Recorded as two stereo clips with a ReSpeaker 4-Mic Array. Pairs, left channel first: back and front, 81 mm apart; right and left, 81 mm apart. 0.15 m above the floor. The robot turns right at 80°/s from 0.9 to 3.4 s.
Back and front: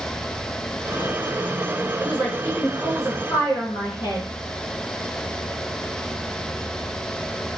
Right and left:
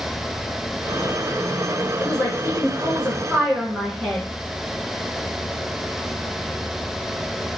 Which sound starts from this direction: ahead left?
A woman speaking, at 2.0 s.